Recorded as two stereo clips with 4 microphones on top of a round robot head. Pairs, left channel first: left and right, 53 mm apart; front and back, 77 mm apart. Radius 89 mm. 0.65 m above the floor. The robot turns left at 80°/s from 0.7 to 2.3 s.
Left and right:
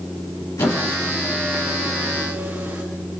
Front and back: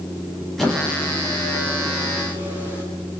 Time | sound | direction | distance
0.6 | a squeak | 85° left | 6.5 m